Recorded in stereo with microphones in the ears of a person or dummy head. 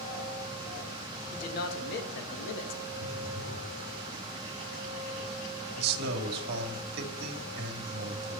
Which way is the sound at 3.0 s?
60° left (ahead or behind).